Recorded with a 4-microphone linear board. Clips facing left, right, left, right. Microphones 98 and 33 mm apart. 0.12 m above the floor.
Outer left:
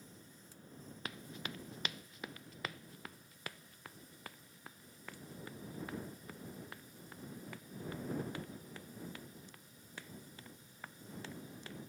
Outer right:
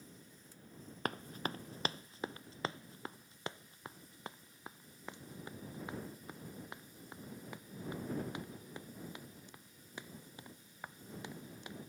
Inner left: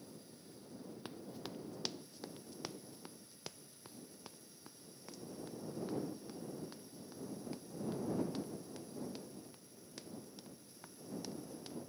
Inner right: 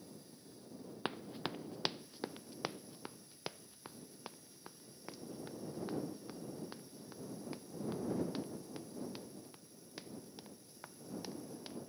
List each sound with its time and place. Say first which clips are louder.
1.1 s running footsteps: outer right 8 dB, inner right 9 dB; 45° right (ahead or behind); by 11.8 s 15° right (ahead or behind)